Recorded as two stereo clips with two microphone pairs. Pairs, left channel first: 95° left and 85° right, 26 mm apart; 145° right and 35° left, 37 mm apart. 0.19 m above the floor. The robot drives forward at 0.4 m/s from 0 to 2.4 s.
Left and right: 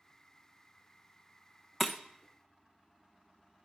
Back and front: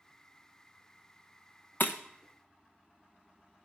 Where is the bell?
I don't hear a bell.